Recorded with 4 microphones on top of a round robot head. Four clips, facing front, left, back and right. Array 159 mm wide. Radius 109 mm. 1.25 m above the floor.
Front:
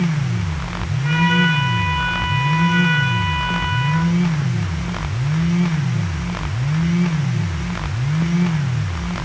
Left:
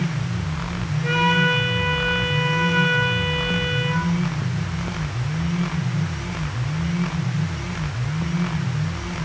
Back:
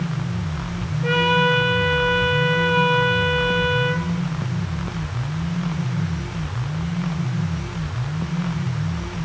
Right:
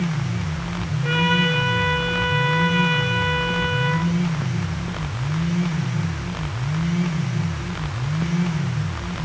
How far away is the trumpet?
About 7 m.